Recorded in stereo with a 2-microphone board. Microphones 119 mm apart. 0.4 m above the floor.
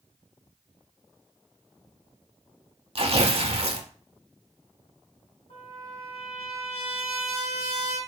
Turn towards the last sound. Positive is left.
turn(degrees=70)  # may be behind; listen again after turning